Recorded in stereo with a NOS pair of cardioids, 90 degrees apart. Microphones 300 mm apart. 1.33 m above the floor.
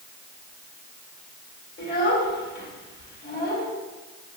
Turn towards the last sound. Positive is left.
turn(degrees=35)